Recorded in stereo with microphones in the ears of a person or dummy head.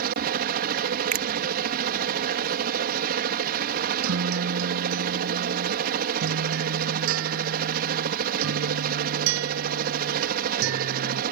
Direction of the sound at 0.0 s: 50° right (ahead or behind).